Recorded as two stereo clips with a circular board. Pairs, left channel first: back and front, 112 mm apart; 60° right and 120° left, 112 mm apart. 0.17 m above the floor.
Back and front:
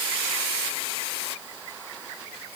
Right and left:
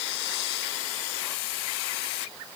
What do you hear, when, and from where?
Only background noise.